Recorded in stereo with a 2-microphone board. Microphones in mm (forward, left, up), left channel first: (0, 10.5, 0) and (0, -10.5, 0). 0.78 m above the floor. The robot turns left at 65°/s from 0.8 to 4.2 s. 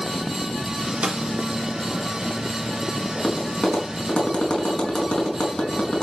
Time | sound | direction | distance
1.0 | a snare drum | 65° right (ahead or behind) | 1.9 m
3.1 | tapping | 35° left (ahead or behind) | 5 m